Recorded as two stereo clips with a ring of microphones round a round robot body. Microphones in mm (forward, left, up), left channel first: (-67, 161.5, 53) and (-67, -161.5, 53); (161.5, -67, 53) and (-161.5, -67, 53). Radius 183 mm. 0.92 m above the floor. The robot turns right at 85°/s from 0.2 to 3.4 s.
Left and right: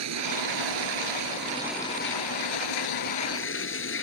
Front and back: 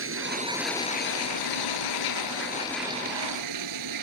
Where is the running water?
130° right; by 4.0 s 140° left.